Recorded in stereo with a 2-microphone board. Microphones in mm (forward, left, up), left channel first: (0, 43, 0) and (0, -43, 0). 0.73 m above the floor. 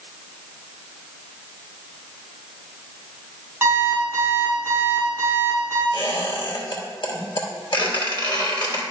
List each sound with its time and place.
3.6 s an alarm clock: 25° right (ahead or behind), 3 m
5.9 s a squeak: 70° left (ahead or behind), 1.6 m